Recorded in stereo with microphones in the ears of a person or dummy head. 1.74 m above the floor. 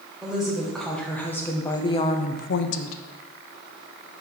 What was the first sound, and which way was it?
A woman speaking, 5° right (ahead or behind).